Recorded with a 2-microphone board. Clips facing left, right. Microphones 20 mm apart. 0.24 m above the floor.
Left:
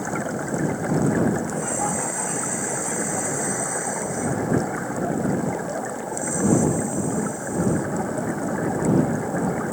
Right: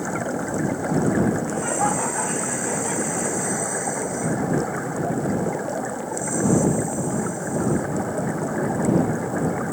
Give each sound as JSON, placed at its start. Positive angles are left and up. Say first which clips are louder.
{"t": 1.5, "sound": "laughter", "louder": "right 3 dB", "side_deg": -20}